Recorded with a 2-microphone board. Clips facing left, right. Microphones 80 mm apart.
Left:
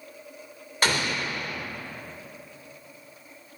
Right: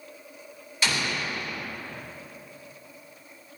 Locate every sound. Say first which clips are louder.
0.8 s an explosion: left 2 dB; 50° left (ahead or behind), 2.5 m